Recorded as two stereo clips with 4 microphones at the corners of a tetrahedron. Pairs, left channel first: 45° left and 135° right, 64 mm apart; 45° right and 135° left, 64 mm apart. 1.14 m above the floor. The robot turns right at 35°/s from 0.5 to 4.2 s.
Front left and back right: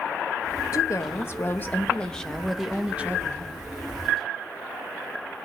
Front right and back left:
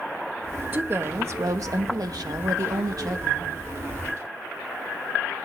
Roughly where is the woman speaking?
Left.